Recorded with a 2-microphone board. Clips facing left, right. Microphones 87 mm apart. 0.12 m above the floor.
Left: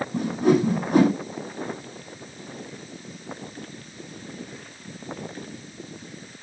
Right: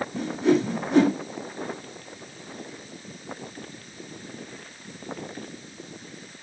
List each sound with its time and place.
0.1 s a whoosh: 55° left (ahead or behind), 4 m